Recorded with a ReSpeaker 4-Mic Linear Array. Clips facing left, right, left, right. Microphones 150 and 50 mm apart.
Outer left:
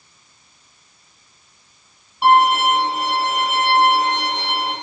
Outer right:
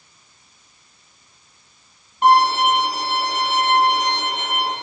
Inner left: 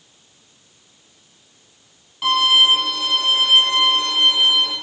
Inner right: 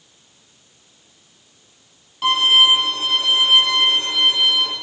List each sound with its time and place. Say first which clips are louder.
2.2 s a violin: outer left 1 dB, inner right 1 dB; 5° left (ahead or behind), 2.5 m